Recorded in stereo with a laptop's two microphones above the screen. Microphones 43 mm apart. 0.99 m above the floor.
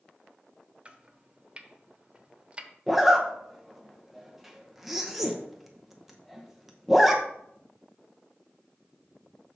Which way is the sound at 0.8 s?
25° right (ahead or behind).